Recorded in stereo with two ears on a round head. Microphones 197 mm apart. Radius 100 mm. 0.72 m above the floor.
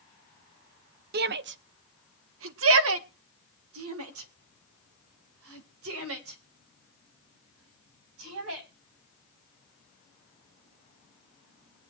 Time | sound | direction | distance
1.1 | a shout | 45° right (ahead or behind) | 0.7 m